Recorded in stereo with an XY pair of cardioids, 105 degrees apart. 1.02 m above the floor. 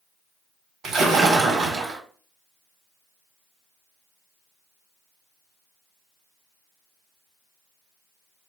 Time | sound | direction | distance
0.8 | a splash | 60° right | 1.1 m